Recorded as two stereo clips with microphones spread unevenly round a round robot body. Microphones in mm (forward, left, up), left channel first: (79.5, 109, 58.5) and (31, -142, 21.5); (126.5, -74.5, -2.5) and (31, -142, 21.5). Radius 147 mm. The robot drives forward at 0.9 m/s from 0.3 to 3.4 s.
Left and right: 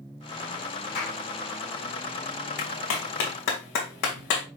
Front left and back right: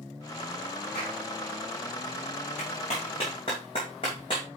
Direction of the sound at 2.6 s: 85° left.